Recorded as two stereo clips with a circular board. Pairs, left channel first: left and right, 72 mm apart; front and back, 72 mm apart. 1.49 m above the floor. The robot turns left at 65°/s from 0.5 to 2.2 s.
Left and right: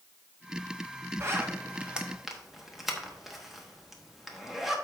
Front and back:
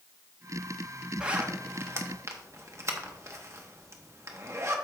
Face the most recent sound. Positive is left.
turn(degrees=-175)